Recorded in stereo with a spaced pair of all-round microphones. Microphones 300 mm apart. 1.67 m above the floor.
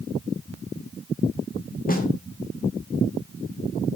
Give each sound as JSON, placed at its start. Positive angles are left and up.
{"t": 1.9, "sound": "a snare drum", "side_deg": 30, "distance_m": 1.1}